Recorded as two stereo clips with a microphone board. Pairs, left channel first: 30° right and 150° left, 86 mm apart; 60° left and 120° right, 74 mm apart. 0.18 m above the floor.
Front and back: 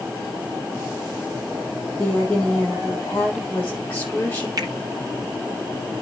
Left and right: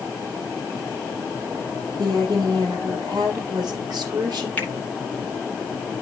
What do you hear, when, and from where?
2.0 s a woman speaking: 95° right, 8 m
4.6 s a finger snap: 125° left, 2.5 m